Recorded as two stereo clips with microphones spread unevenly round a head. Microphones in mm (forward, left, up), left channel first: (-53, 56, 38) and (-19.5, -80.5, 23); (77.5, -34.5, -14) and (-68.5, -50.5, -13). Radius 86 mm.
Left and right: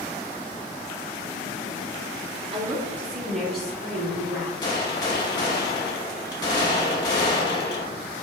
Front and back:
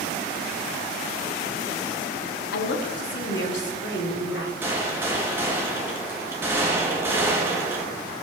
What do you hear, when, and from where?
2.5 s a woman speaking: 15° right, 0.6 m; by 4.5 s 20° left, 2.5 m
4.6 s a gunshot: 125° left, 0.8 m